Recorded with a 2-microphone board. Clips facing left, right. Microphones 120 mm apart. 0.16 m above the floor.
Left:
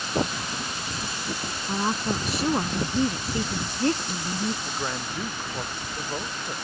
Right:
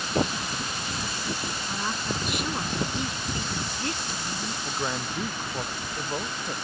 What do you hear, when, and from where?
1.7 s a woman speaking: 35° left (ahead or behind)
4.7 s a man speaking: 5° right (ahead or behind)